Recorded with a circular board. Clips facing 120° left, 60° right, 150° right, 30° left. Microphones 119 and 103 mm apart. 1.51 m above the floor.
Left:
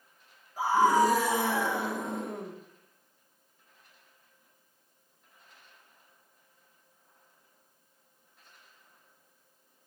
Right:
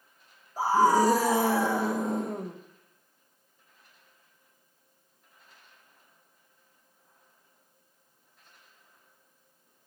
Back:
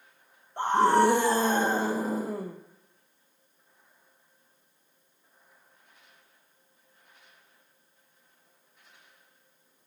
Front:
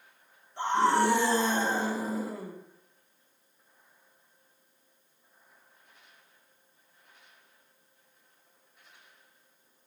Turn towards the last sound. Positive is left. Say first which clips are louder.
# right 1 dB, back 3 dB
turn(degrees=-110)